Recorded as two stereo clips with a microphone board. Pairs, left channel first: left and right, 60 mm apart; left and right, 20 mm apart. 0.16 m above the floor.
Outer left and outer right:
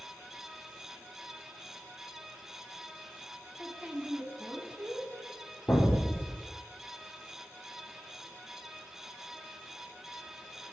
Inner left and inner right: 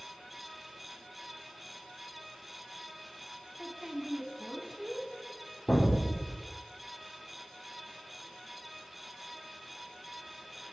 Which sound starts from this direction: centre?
A woman speaking, at 3.6 s.